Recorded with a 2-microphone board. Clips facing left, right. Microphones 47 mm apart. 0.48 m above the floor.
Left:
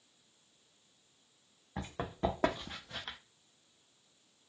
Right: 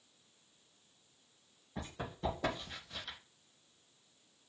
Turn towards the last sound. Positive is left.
turn(degrees=45)  # may be behind; listen again after turning